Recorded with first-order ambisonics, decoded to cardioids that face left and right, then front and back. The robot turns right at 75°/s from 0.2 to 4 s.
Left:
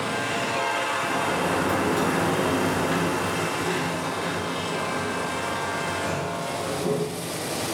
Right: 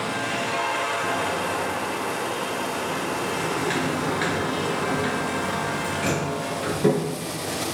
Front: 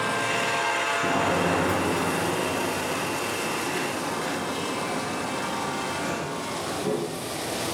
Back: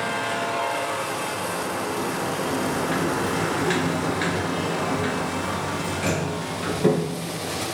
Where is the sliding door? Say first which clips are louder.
Even, front 4 dB; straight ahead, 2 m; by 7.7 s 135° right, 2 m.